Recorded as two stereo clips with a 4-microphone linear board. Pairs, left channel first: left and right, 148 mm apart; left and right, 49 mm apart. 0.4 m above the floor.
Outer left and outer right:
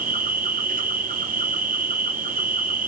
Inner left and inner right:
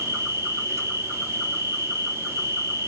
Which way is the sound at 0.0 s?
70° right (ahead or behind).